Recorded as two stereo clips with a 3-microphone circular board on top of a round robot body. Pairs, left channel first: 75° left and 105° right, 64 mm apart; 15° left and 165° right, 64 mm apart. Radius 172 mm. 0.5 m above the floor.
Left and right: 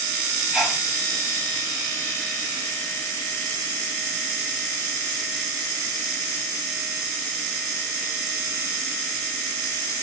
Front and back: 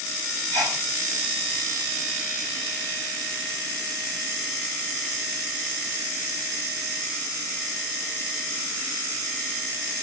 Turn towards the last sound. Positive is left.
turn(degrees=165)